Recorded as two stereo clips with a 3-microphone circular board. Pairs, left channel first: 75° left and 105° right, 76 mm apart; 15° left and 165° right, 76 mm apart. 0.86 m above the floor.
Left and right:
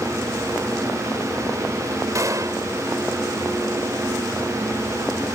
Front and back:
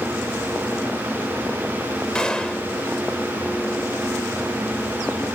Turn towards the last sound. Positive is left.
turn(degrees=-65)